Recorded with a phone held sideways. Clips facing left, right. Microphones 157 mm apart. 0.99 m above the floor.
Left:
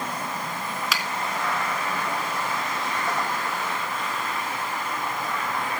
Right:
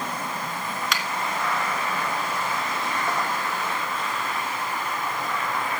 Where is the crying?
I don't hear crying.